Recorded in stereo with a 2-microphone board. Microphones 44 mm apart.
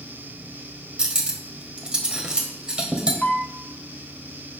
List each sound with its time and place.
1.0 s cutlery clinking: 20° right (ahead or behind), 1.2 m
3.2 s a piano: 30° left (ahead or behind), 0.9 m